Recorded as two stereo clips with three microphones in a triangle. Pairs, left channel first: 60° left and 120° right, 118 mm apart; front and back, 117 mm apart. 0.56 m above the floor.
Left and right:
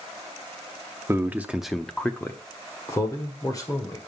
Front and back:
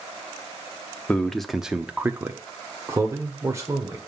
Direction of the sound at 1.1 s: 70° right.